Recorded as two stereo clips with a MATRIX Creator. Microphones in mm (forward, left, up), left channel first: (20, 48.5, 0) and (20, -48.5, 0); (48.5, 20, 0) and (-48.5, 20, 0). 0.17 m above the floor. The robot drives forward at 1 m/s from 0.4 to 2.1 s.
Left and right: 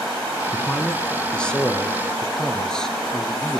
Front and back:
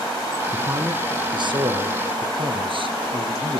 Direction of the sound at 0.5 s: 150° left.